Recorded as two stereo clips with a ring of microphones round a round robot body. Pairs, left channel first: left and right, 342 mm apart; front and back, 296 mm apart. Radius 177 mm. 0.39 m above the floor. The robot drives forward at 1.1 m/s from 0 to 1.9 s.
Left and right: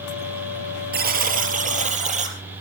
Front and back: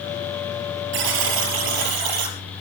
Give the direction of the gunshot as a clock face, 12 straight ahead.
I don't hear a gunshot.